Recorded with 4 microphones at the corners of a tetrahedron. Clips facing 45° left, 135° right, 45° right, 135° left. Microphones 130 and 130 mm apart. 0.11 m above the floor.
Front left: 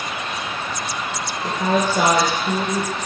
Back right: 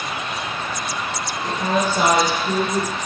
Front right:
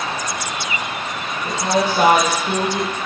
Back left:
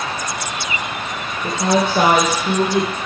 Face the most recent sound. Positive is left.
turn(degrees=135)